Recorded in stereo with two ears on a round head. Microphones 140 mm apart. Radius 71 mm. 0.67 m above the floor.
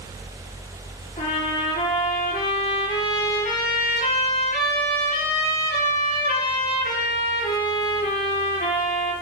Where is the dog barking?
I don't hear a dog barking.